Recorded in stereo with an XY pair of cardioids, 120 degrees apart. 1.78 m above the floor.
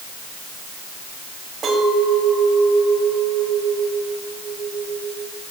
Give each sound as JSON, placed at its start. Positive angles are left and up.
{"t": 1.6, "sound": "a clink", "azimuth_deg": -50, "distance_m": 5.5}